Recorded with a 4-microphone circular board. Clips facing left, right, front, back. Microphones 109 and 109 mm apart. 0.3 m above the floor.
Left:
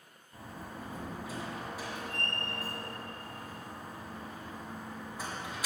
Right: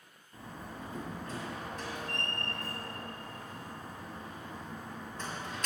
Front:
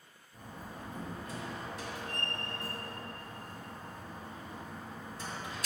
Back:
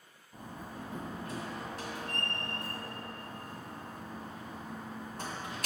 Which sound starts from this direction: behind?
A door slam, at 0.3 s.